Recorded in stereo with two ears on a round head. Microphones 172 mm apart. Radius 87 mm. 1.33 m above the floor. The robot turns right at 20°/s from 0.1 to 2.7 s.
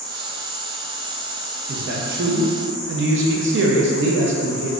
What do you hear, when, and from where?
0.0 s an insect: 15° right, 0.8 m; by 4.8 s 40° left, 0.8 m
1.7 s a man speaking: 45° right (ahead or behind), 0.7 m; by 4.7 s 65° right (ahead or behind), 0.7 m